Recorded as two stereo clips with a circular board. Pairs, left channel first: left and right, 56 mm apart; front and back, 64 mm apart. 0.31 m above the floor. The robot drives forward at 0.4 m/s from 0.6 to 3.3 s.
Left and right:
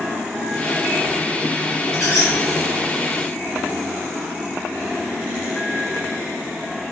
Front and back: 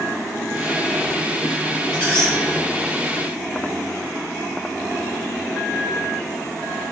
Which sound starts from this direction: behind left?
A squeak, at 1.9 s.